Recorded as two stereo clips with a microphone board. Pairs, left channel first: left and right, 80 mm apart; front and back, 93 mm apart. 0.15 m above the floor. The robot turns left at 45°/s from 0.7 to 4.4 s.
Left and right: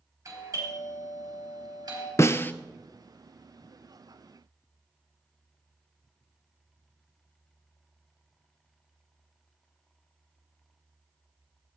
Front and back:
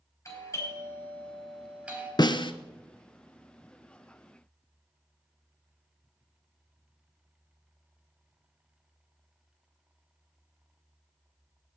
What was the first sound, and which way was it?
A doorbell, 55° right.